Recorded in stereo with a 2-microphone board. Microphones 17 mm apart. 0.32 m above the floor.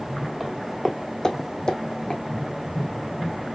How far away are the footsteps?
About 0.8 m.